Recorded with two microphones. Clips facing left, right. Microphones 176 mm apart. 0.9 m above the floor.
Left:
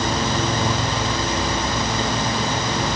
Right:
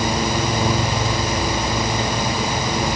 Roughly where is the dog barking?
No dog barking in this recording.